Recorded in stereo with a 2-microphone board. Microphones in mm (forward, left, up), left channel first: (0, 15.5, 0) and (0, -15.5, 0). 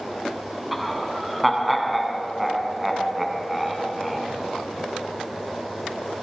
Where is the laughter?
5° right (ahead or behind), 2.5 m.